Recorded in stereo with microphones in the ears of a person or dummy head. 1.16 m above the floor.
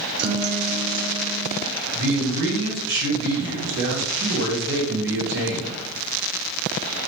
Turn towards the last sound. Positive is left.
turn(degrees=-60)  # may be behind; listen again after turning